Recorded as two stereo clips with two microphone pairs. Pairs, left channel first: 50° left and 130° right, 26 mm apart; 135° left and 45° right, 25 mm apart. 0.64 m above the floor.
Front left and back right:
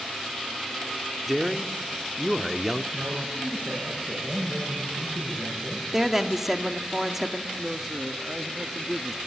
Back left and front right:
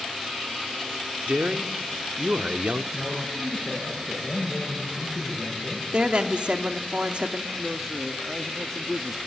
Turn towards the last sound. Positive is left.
turn(degrees=-100)